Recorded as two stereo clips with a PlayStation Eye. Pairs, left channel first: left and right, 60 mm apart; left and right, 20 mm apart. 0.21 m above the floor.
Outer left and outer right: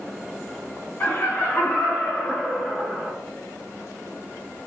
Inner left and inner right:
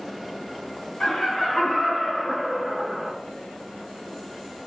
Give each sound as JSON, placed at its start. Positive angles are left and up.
{"t": 1.0, "sound": "laughter", "side_deg": 40, "distance_m": 1.9}